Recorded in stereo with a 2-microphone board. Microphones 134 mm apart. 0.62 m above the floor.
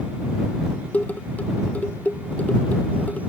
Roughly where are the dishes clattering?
Centre.